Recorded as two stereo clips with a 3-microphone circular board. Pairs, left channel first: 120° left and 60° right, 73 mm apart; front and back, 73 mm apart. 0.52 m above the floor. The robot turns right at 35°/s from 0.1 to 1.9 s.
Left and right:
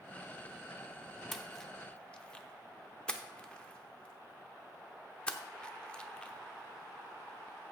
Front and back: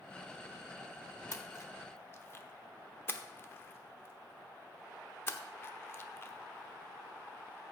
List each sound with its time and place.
1.3 s a splash: 30° left, 0.7 m; by 7.7 s 50° left, 0.7 m